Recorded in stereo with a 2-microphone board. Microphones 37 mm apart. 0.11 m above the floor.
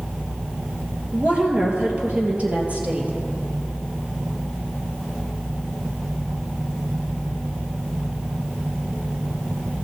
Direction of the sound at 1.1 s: 30° right (ahead or behind).